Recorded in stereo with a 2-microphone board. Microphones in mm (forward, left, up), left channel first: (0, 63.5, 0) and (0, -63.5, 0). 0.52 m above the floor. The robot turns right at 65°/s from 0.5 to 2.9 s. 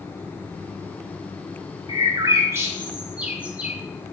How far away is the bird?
About 1.0 m.